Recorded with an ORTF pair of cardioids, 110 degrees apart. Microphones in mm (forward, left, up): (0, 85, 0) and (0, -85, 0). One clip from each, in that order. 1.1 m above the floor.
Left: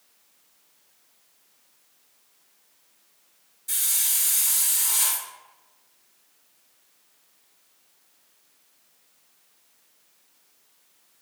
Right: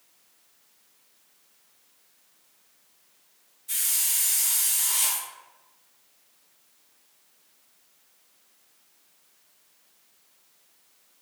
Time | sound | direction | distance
3.7 | a hiss | 55° left | 1.7 m